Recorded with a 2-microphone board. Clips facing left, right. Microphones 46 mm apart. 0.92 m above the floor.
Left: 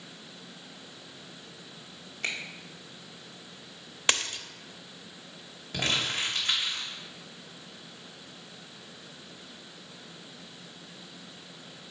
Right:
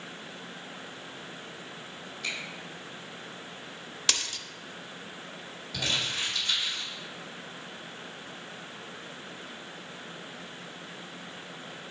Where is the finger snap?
65° left (ahead or behind), 1.9 m.